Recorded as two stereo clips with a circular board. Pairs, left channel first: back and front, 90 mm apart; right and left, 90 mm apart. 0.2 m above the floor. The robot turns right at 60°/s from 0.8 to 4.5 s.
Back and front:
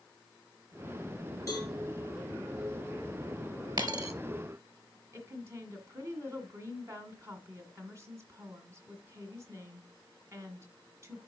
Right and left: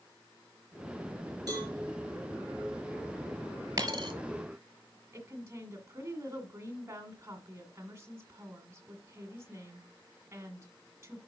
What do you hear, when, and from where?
1.5 s a cowbell: 130° left, 4 m; by 1.7 s 145° left, 4 m
3.8 s a dropped coin: 40° left, 1.0 m; by 4.1 s 60° left, 1.0 m
5.1 s a woman speaking: 45° left, 1.8 m